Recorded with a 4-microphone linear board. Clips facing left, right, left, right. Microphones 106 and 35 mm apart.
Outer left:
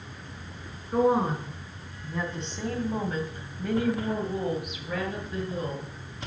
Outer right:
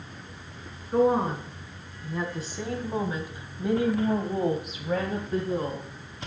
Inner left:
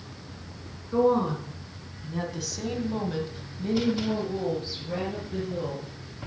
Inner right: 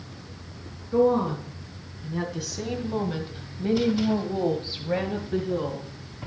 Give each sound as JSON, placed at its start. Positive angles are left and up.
{"t": 0.9, "sound": "a woman speaking", "side_deg": 5, "distance_m": 3.0}